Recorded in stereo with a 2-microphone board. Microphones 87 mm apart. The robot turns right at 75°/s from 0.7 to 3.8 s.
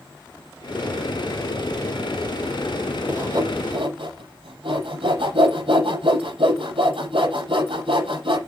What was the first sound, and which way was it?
Sawing, 30° right (ahead or behind).